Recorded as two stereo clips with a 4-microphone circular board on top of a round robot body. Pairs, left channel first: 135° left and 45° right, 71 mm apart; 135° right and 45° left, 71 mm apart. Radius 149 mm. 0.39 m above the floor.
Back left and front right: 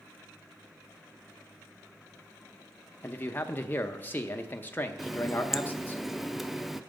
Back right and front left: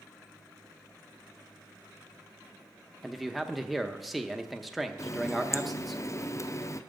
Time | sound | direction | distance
3.0 | a man speaking | 135° left | 0.9 m
5.0 | a running tap | 130° right | 0.7 m